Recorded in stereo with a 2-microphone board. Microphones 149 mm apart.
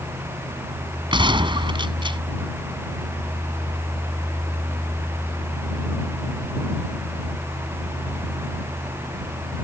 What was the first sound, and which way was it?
A gunshot, 35° right (ahead or behind).